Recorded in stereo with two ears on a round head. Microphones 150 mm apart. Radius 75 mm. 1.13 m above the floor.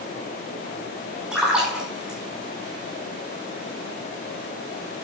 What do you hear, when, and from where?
1.3 s a splash: 5° right (ahead or behind), 5 m